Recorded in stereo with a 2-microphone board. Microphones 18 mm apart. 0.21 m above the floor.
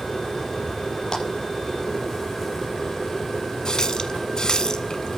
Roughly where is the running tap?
Left.